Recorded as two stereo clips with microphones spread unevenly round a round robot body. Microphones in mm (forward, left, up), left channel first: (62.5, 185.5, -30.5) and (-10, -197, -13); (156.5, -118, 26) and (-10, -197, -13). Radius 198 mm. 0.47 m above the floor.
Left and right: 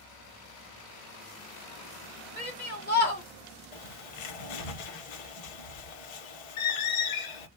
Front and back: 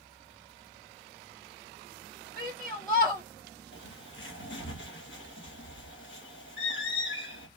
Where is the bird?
65° left, 0.9 m.